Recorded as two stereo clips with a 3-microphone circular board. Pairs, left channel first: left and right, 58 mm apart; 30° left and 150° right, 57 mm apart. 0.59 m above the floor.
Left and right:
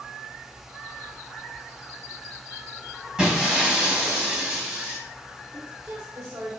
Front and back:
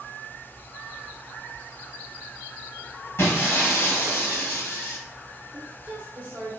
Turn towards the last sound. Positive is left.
turn(degrees=-95)